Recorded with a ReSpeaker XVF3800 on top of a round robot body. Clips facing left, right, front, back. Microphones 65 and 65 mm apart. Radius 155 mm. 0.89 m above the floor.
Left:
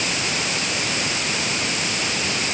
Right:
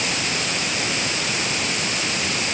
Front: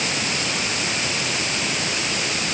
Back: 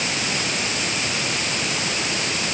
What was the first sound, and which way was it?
Only background noise.